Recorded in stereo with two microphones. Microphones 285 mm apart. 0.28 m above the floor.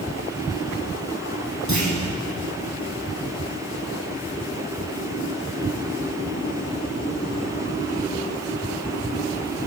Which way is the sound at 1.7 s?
75° right (ahead or behind).